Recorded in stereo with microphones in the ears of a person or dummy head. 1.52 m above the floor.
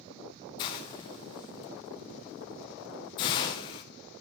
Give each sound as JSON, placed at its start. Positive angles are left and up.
{"t": 0.6, "sound": "a hiss", "side_deg": 25, "distance_m": 0.7}